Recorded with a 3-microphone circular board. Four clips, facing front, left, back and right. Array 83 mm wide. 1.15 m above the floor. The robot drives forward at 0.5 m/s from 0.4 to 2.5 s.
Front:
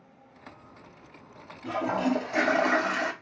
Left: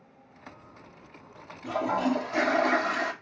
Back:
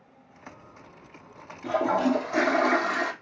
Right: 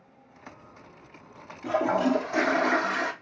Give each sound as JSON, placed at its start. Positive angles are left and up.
{"t": 1.6, "sound": "a toilet flushing", "azimuth_deg": -135, "distance_m": 0.8}